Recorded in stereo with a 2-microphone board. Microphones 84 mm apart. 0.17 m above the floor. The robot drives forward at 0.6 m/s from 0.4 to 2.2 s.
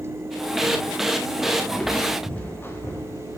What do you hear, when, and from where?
1.7 s footsteps: 10° left (ahead or behind), 2.0 m; by 3.4 s 40° left (ahead or behind), 2 m